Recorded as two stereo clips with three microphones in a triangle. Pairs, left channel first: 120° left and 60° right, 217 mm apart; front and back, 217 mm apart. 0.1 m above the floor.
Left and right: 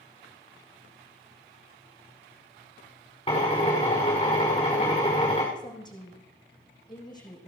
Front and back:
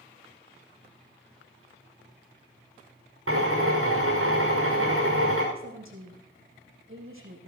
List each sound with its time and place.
3.3 s a drill: 175° right, 6 m
5.5 s a woman speaking: 170° right, 5.5 m